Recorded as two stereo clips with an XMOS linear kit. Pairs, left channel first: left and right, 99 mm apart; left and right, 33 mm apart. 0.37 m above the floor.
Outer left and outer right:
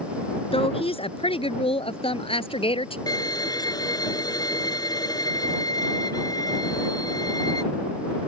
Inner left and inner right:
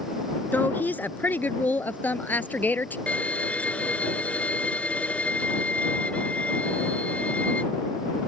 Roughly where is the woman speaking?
Left.